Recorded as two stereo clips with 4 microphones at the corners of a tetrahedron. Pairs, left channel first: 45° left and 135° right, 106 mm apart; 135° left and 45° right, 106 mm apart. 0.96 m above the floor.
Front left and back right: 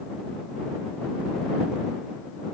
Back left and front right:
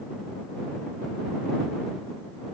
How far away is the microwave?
I don't hear a microwave.